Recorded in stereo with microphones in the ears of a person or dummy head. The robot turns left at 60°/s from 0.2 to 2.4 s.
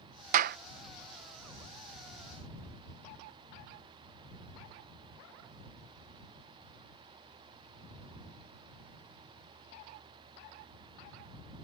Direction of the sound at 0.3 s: 45° right (ahead or behind).